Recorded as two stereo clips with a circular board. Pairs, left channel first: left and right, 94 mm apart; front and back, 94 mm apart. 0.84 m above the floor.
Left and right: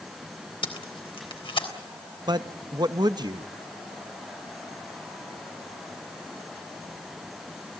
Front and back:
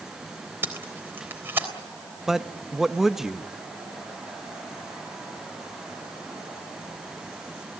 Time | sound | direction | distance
0.6 | tape being pulled | 115° left | 3.5 m
2.3 | a man speaking | 95° right | 0.7 m